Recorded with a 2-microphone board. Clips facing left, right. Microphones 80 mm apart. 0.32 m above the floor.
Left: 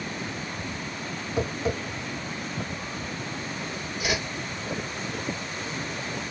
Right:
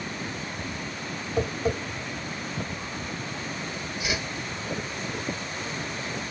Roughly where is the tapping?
Centre.